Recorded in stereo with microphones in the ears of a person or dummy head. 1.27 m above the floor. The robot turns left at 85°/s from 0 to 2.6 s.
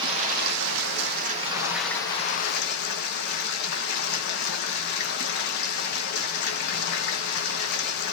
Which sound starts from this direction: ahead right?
Running water, at 0.0 s.